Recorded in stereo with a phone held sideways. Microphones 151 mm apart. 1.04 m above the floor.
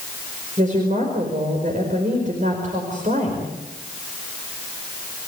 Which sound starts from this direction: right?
A woman speaking, at 0.6 s.